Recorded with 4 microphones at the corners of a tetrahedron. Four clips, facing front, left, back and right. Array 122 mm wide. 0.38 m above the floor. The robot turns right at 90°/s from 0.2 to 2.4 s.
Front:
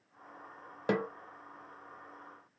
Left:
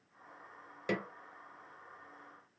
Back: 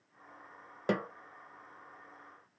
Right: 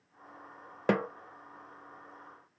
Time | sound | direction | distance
0.9 | a snare drum | 80° right | 0.5 m